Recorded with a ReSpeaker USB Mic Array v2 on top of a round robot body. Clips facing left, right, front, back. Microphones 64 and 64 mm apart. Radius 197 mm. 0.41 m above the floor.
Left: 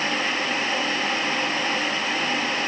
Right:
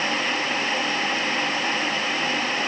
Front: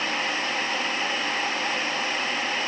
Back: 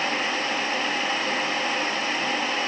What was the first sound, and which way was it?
Only background noise.